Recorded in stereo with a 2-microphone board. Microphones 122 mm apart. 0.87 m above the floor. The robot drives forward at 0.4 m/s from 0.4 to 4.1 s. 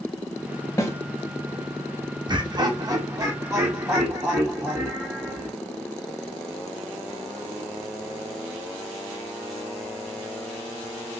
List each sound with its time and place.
0.8 s a snare drum: 25° left (ahead or behind), 0.7 m
2.3 s laughter: 35° right (ahead or behind), 0.5 m; by 5.5 s 20° right (ahead or behind), 1.0 m